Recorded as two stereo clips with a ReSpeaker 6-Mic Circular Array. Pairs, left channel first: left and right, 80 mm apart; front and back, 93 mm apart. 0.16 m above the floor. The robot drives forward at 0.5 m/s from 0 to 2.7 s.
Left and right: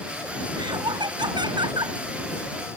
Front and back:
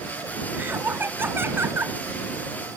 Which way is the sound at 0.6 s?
110° right.